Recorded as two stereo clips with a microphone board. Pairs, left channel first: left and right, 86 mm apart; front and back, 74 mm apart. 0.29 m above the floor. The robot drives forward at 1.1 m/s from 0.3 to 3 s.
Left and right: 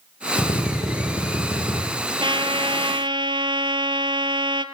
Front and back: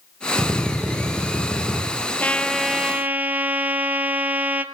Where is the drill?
105° left, 8.5 m; by 1.8 s 115° left, 9 m.